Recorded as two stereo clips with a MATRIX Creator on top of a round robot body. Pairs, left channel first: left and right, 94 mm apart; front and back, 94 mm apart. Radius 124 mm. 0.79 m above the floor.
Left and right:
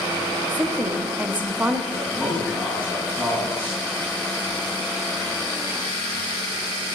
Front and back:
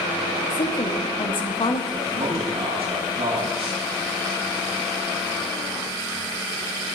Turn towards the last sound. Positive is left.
turn(degrees=-165)